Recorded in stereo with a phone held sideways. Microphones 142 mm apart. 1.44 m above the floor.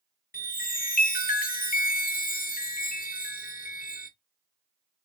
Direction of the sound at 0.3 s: 85° left.